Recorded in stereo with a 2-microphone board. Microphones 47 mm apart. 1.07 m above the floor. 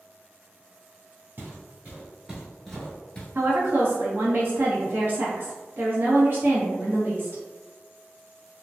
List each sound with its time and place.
1.4 s footsteps: 45° right (ahead or behind), 1.4 m; by 3.2 s 25° left (ahead or behind), 1.1 m
3.4 s a woman speaking: 55° right (ahead or behind), 1.1 m